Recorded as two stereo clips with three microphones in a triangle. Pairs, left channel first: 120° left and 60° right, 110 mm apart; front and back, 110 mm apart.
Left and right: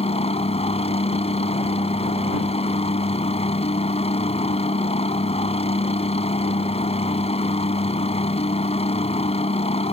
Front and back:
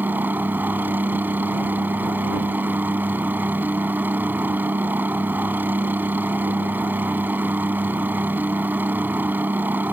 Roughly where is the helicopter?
Left.